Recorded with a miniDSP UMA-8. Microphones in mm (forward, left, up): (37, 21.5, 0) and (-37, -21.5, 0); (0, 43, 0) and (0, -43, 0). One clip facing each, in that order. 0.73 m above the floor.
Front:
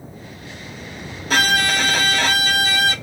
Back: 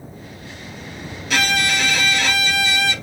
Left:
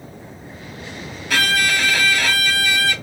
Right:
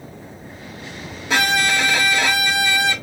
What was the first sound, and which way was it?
A violin, 20° right.